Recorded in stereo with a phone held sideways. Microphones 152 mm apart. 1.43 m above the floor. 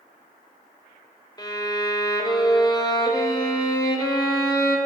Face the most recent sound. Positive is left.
turn(degrees=25)  # may be behind; listen again after turning